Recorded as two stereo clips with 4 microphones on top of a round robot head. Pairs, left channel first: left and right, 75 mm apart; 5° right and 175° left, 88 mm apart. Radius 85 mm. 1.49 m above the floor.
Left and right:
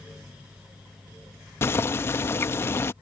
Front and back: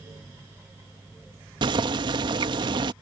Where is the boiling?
145° left.